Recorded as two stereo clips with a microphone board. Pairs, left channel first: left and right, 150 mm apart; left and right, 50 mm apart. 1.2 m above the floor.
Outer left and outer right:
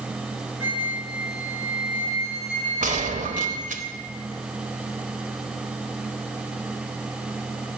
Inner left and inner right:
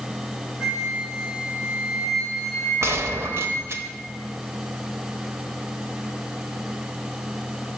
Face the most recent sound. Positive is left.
turn(degrees=-65)  # may be behind; listen again after turning